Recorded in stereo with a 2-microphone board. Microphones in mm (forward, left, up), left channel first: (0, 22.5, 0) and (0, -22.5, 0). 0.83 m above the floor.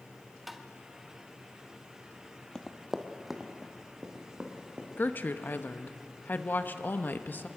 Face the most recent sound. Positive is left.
turn(degrees=45)  # may be behind; listen again after turning